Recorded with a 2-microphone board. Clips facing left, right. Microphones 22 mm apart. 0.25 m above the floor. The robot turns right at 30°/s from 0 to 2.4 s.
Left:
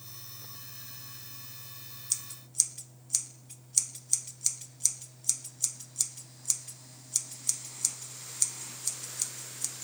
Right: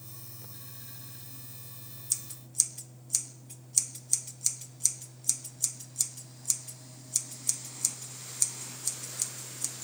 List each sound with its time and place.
2.1 s scissors: 20° left (ahead or behind), 1.6 m; by 9.8 s 10° left (ahead or behind), 1.6 m